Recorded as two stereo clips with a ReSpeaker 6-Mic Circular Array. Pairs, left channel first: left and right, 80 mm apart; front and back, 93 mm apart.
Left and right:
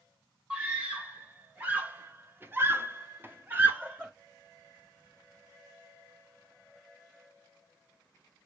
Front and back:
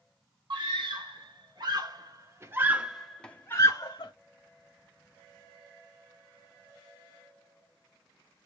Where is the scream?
160° right, 2.0 m; by 4.1 s 20° right, 1.0 m.